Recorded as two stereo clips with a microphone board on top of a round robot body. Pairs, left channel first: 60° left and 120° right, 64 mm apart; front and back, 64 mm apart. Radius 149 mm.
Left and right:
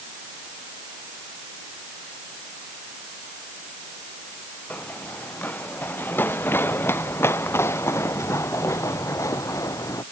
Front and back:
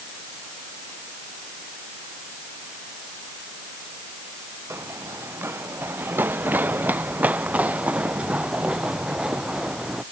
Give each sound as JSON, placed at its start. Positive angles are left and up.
{"t": 4.7, "sound": "running footsteps", "azimuth_deg": 125}